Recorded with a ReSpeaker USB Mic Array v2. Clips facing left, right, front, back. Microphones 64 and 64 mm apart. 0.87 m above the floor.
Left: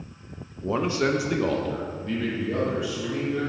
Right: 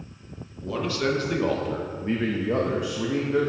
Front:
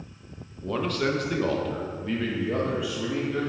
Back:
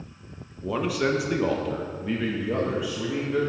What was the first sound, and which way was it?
A man speaking, 100° left.